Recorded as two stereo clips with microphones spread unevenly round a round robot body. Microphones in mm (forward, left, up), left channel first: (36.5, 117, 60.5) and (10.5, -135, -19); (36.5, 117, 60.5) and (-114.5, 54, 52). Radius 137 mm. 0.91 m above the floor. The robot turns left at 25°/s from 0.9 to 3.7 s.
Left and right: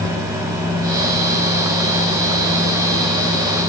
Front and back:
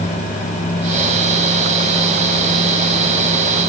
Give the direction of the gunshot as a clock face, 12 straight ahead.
I don't hear a gunshot.